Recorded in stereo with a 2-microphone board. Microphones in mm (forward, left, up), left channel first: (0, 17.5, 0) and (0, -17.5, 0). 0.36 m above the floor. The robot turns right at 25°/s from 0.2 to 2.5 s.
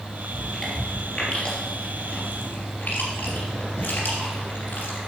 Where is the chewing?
Centre (ahead or behind), 3 m; by 5.0 s 50° left (ahead or behind), 3 m.